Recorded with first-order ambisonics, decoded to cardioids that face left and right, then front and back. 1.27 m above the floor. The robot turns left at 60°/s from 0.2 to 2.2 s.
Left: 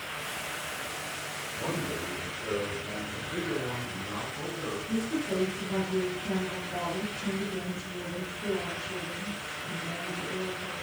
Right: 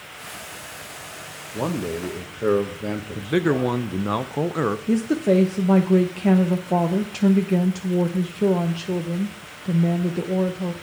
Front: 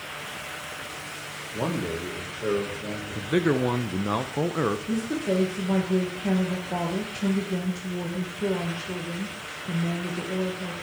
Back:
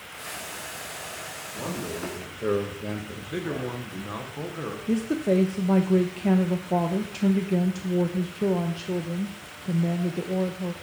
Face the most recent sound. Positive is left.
turn(degrees=-105)